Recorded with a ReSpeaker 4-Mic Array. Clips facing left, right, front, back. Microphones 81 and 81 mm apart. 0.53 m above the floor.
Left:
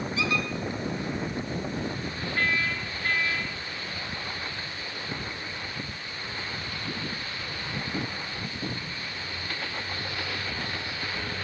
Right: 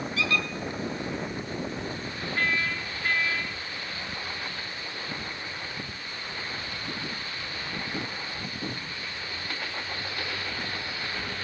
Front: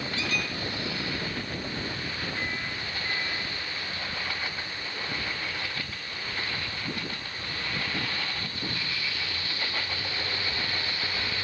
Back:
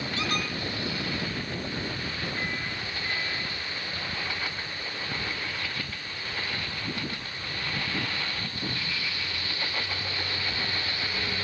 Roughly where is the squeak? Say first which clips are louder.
Even, back 2 dB; behind.